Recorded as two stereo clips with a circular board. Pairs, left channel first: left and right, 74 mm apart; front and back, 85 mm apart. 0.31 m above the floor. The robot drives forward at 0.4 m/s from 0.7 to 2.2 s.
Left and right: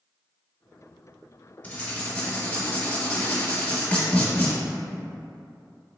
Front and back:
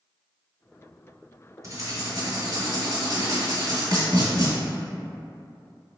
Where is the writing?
150° left, 1.2 m; by 4.5 s 155° left, 1.4 m.